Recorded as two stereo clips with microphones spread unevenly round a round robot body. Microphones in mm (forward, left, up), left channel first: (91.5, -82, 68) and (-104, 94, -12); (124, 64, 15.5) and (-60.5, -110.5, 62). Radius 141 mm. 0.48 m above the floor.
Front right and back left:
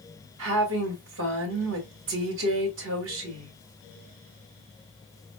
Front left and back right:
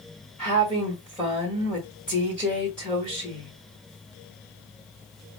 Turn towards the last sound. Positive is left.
turn(degrees=125)